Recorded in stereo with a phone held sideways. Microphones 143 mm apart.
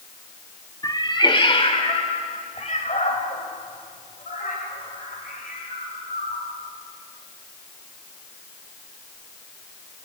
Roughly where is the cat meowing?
Left.